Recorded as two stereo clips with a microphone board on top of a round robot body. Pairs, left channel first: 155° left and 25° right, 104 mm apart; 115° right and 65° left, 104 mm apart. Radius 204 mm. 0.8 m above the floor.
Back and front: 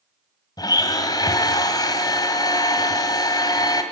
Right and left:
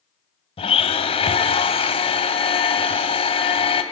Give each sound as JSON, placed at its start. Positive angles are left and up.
{"t": 0.6, "sound": "a blender", "azimuth_deg": -145, "distance_m": 1.6}